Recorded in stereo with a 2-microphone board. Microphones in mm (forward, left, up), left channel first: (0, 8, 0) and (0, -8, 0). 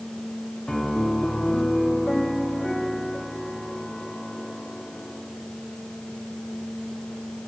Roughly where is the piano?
Left.